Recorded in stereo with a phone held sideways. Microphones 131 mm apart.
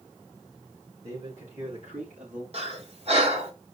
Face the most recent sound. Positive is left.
turn(degrees=-50)  # may be behind; listen again after turning